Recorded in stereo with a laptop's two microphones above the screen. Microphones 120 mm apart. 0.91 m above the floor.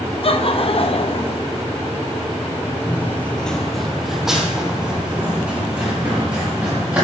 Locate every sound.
0.2 s laughter: 50° left (ahead or behind), 0.8 m
2.9 s running footsteps: 20° left (ahead or behind), 0.9 m; by 7.0 s 10° right (ahead or behind), 4 m